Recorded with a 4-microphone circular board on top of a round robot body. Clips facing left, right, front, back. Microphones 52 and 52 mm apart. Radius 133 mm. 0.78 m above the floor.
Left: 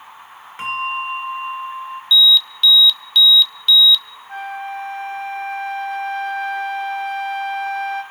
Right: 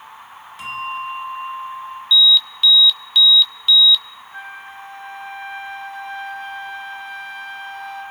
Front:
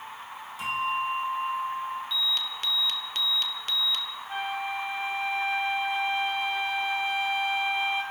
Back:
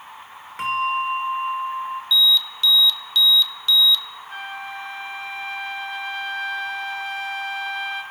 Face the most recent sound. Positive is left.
turn(degrees=75)